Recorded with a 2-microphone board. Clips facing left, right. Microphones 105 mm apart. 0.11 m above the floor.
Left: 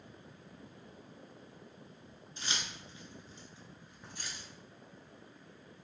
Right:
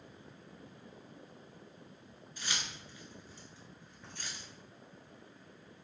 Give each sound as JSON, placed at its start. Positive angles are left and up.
{"t": 2.4, "sound": "keys jangling", "side_deg": 30, "distance_m": 1.1}